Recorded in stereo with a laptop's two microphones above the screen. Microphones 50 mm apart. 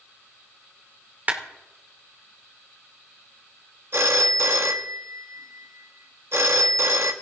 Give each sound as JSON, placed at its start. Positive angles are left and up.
{"t": 1.3, "sound": "a clap", "side_deg": -35, "distance_m": 2.5}
{"t": 3.9, "sound": "a phone ringing", "side_deg": -55, "distance_m": 1.2}